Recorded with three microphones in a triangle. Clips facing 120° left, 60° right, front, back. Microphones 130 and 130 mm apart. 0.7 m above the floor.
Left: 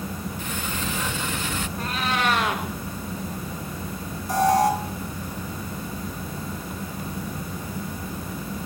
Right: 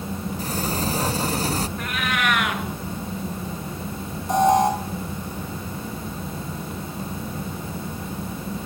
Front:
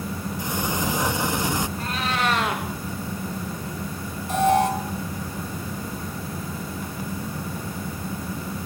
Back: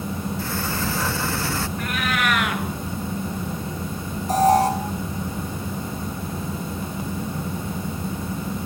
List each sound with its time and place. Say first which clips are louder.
0.4 s a sliding door: right 7 dB, even; 60° right, 0.8 m
1.8 s a cat meowing: even, back 1 dB; 60° left, 3 m
4.3 s an alarm: right 2 dB, back 3 dB; 130° right, 6 m